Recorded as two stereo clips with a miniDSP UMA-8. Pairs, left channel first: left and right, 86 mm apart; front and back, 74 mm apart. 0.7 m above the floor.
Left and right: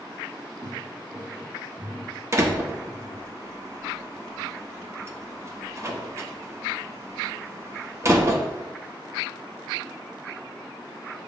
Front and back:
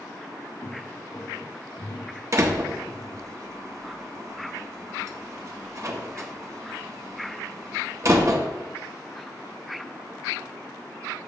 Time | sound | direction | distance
0.6 | footsteps | 55° right | 2 m
2.3 | a door slam | 140° right | 0.8 m